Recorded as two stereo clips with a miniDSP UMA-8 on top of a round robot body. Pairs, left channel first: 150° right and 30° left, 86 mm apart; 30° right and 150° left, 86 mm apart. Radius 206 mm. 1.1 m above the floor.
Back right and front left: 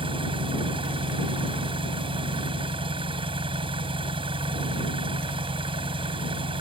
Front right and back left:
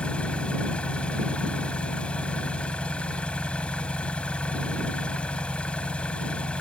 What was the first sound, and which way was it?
An engine running, 45° left.